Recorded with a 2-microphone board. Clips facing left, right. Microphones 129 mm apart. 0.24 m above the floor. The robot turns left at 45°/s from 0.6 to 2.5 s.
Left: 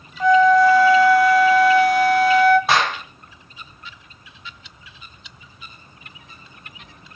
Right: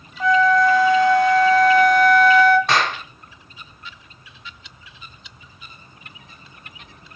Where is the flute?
Straight ahead, 0.6 m; by 2.6 s 85° right, 0.6 m.